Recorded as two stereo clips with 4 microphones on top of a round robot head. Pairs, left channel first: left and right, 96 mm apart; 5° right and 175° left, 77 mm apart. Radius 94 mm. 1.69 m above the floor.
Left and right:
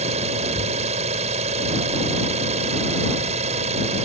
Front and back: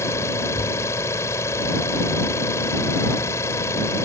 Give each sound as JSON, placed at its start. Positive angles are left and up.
{"t": 0.0, "sound": "an engine running", "azimuth_deg": -70}